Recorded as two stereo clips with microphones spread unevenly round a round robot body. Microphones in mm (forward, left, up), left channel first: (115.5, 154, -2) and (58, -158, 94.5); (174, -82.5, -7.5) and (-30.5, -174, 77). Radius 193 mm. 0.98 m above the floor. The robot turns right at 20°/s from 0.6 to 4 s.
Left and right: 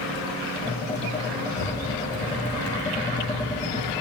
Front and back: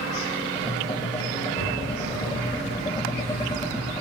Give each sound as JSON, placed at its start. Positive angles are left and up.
{"t": 1.5, "sound": "a zipper", "azimuth_deg": 70, "distance_m": 5.0}